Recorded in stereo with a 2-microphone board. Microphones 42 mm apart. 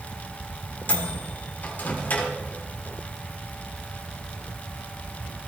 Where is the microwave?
50° left (ahead or behind), 2.0 m.